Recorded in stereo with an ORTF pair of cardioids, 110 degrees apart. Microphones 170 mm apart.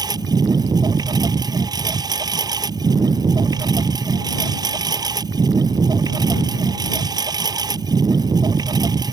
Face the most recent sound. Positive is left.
turn(degrees=-25)